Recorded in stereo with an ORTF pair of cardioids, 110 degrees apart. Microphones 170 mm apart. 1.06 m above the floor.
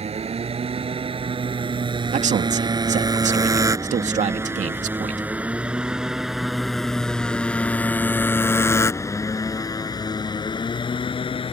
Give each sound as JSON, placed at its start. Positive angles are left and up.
{"t": 0.0, "sound": "a motorcycle", "azimuth_deg": -35}
{"t": 2.1, "sound": "a man speaking", "azimuth_deg": -45}